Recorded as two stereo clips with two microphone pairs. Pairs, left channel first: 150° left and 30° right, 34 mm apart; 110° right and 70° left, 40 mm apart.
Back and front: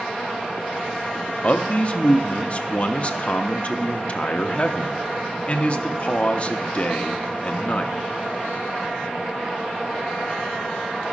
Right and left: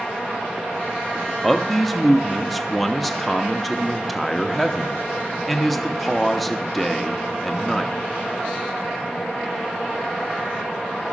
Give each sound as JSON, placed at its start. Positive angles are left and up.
{"t": 1.4, "sound": "a man speaking", "azimuth_deg": 160, "distance_m": 0.7}